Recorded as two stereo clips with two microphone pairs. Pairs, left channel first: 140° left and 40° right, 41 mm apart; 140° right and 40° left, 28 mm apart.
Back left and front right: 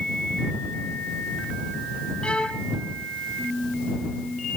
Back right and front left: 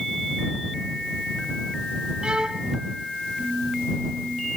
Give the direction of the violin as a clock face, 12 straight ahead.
9 o'clock.